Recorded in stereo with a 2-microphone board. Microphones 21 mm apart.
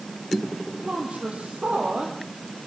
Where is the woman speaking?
80° right, 7.5 m; by 2.6 s 85° right, 8.5 m.